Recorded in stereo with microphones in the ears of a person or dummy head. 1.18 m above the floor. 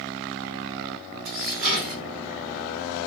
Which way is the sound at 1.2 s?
40° right (ahead or behind).